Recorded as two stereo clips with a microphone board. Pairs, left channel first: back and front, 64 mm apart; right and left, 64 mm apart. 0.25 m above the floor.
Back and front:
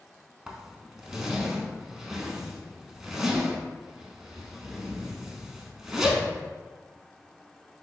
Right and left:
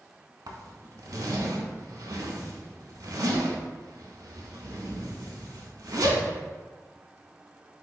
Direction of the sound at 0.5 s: 85° left.